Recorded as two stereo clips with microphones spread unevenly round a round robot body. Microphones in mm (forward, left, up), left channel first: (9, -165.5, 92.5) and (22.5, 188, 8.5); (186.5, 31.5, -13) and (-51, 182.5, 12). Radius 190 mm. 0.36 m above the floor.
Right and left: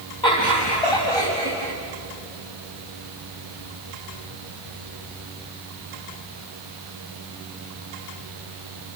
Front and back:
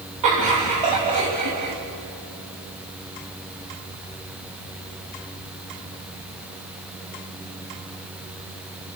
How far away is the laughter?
About 3.5 m.